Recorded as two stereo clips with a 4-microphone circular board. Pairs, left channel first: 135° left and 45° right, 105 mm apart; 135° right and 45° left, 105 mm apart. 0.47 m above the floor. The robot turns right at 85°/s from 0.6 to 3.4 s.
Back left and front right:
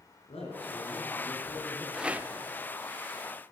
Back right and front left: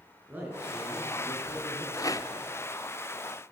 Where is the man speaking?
120° left, 7.5 m; by 2.1 s 110° right, 7.5 m.